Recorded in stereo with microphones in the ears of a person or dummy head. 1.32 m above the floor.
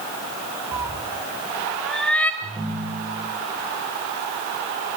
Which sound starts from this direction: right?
A ringtone, at 2.4 s.